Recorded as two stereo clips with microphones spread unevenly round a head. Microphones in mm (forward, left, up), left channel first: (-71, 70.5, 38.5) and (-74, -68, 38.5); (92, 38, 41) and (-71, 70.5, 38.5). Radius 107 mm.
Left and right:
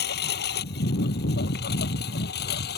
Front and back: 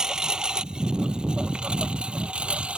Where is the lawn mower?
80° left; by 2.8 s 85° left.